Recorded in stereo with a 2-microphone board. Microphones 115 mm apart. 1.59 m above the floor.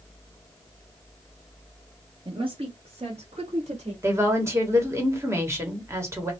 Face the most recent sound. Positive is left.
turn(degrees=-25)  # may be behind; listen again after turning